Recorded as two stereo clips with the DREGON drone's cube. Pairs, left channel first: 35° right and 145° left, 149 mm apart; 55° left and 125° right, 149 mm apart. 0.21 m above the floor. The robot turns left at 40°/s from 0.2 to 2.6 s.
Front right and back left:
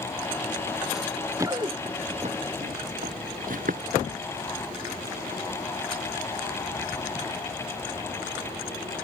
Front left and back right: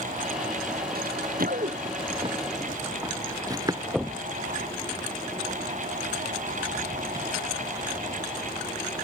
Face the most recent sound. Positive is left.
turn(degrees=170)